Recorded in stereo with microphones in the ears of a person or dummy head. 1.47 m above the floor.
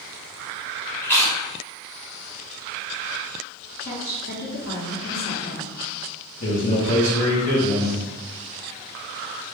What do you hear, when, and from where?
1.0 s chewing: 15° left (ahead or behind), 1.1 m
3.8 s a woman speaking: 60° left (ahead or behind), 1.5 m
6.4 s a man speaking: 45° left (ahead or behind), 1.5 m